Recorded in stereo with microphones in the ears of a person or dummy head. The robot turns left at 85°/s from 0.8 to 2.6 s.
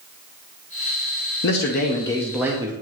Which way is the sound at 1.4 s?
75° left.